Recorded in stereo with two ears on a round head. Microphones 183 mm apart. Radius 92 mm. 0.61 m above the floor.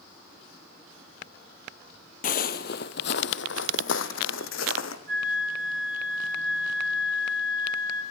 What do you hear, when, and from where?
2.2 s footsteps: 45° left (ahead or behind), 1.0 m; by 5.0 s 75° left (ahead or behind), 2 m
5.1 s a flute: 25° left (ahead or behind), 7 m